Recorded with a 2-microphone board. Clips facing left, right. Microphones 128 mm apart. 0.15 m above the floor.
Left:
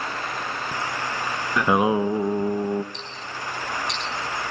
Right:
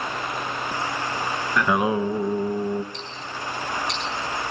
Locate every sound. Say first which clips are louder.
1.6 s singing: left 2 dB; 20° left (ahead or behind), 0.6 m
2.9 s ticking: right 1 dB; 50° right (ahead or behind), 4.5 m